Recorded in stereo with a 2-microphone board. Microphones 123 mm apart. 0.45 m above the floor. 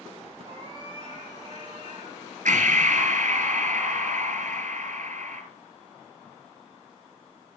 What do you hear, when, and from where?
0.4 s a cat meowing: 40° right (ahead or behind), 8 m; by 2.9 s 35° right (ahead or behind), 9 m
2.5 s breathing: 80° right, 2 m